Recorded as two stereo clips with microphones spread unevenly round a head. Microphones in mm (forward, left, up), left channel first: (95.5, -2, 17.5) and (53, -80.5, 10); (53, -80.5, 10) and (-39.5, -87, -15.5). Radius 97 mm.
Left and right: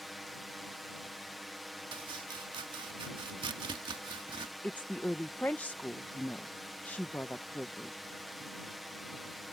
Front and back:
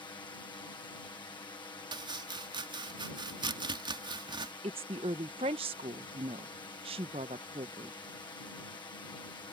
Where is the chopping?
140° right.